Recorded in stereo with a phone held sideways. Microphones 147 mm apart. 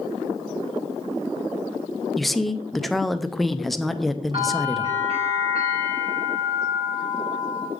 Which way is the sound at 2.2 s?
Centre (ahead or behind).